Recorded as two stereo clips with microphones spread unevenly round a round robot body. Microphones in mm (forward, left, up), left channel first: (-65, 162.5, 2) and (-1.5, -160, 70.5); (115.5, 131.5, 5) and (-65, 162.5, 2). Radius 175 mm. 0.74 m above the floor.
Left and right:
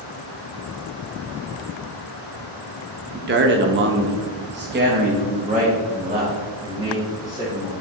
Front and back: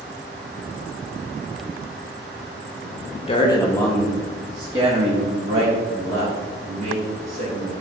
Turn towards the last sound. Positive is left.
turn(degrees=-160)